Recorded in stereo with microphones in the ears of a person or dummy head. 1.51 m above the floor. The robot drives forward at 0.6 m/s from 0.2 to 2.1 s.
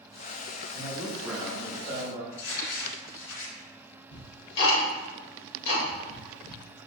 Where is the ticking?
60° left (ahead or behind), 1.2 m.